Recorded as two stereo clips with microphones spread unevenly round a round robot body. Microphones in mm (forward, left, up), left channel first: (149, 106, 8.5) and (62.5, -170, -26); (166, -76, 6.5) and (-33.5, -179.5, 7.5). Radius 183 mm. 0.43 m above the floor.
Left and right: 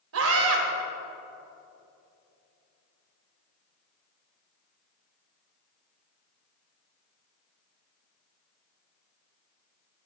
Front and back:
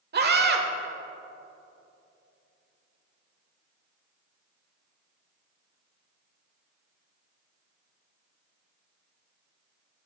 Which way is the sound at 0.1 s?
120° right.